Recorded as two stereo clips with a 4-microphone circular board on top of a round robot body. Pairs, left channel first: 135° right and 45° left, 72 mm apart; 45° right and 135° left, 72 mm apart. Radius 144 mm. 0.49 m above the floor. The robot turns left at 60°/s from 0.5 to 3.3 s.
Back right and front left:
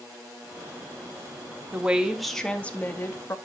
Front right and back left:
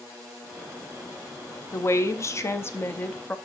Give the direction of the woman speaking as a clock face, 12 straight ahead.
12 o'clock.